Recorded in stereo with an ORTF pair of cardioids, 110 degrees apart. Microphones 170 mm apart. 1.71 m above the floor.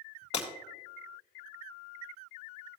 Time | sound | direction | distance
0.3 | breaking glass | 40° left | 3.5 m